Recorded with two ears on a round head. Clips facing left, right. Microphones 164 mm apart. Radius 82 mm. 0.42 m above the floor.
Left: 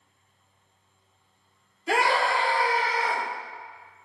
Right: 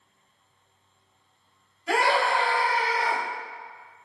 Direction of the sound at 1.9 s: 20° left (ahead or behind).